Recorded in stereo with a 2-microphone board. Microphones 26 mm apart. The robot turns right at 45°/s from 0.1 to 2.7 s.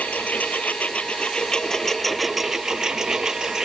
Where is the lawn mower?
85° left; by 3.6 s 160° right.